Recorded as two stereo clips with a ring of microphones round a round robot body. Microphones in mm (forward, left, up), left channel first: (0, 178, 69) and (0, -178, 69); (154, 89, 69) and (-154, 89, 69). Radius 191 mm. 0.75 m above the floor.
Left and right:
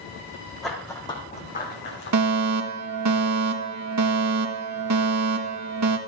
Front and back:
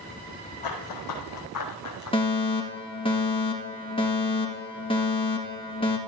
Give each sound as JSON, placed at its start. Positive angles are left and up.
{"t": 0.6, "sound": "running footsteps", "azimuth_deg": 0, "distance_m": 3.0}
{"t": 2.1, "sound": "a fire alarm", "azimuth_deg": -70, "distance_m": 2.0}